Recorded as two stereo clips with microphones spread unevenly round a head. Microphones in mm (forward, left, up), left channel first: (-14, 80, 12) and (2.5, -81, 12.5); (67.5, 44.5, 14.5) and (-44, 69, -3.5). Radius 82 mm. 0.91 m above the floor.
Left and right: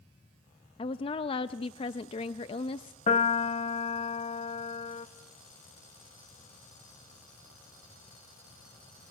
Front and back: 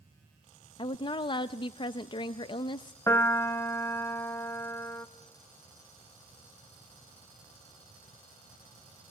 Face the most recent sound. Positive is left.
turn(degrees=55)